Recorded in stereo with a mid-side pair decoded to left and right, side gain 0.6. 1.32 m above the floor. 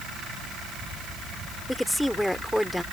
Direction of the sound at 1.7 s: 5° left.